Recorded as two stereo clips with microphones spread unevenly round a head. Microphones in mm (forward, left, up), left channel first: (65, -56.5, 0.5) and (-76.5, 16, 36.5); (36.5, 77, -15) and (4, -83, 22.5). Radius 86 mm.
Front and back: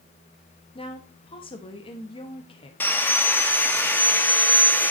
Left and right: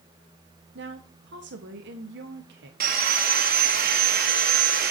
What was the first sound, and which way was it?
A woman speaking, 80° right.